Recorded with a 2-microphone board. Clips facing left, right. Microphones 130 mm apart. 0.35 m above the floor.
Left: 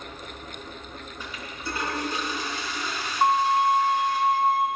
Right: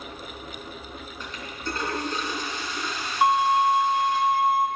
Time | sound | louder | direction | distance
1.2 | a toilet flushing | right 2 dB | 10° left (ahead or behind) | 3.5 m
3.2 | a violin | right 1 dB | 10° right (ahead or behind) | 1.0 m